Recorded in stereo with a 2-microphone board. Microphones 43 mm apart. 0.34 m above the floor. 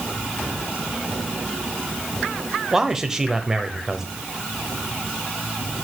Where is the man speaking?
10° right (ahead or behind), 1.1 m.